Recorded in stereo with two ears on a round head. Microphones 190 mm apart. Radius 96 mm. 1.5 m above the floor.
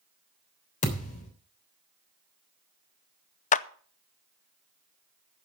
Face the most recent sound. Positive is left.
turn(degrees=35)  # may be behind; listen again after turning